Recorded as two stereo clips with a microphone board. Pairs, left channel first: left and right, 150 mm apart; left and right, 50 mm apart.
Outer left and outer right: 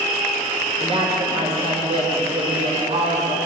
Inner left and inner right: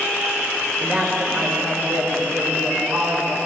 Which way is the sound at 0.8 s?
40° right (ahead or behind).